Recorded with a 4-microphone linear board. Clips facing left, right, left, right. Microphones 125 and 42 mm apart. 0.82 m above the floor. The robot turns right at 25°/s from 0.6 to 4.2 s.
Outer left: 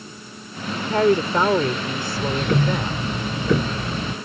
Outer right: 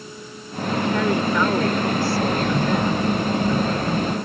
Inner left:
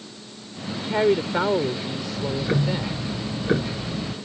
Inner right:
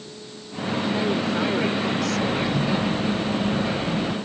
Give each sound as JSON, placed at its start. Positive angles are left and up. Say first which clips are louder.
{"t": 0.7, "sound": "a woman speaking", "louder": "outer left 3 dB, inner left 3 dB", "azimuth_deg": 130}
{"t": 2.1, "sound": "ticking", "louder": "outer right 1 dB, inner right 2 dB", "azimuth_deg": 55}